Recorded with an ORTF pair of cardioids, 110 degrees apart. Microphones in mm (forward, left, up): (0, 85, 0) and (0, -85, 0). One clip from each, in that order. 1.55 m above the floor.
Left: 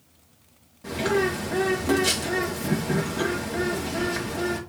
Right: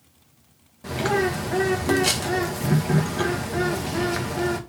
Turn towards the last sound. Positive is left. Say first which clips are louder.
# right 1 dB
turn(degrees=-25)